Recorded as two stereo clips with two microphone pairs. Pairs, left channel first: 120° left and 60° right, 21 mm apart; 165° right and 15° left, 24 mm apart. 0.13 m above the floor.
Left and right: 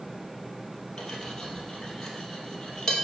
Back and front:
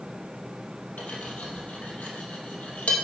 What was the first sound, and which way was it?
Cutlery clinking, 175° right.